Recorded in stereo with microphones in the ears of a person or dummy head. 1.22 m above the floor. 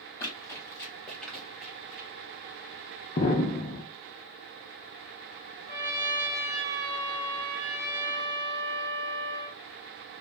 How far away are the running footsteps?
About 1.9 m.